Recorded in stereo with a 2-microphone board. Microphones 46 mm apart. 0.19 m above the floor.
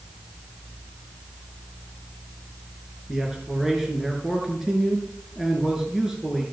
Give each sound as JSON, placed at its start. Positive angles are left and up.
{"t": 3.1, "sound": "a man speaking", "side_deg": -10, "distance_m": 3.0}